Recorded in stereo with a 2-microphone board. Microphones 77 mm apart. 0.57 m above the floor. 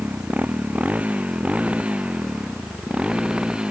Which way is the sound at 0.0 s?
20° right (ahead or behind).